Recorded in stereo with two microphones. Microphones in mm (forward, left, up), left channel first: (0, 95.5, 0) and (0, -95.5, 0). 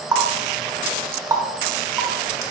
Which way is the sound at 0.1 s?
15° right (ahead or behind).